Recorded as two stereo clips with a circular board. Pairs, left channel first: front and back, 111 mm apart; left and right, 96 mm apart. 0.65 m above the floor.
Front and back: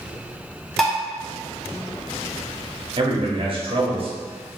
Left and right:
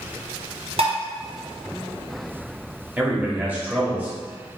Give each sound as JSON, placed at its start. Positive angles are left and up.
{"t": 0.8, "sound": "dishes clattering", "azimuth_deg": -90, "distance_m": 0.8}
{"t": 3.0, "sound": "a man speaking", "azimuth_deg": -160, "distance_m": 1.1}